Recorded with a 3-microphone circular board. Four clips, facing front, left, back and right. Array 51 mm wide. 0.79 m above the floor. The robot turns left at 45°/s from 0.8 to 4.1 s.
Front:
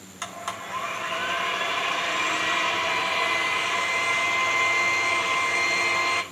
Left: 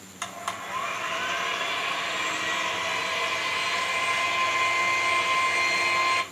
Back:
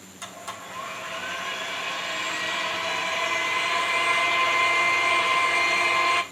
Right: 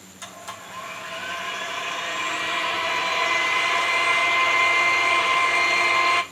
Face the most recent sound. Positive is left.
turn(degrees=-95)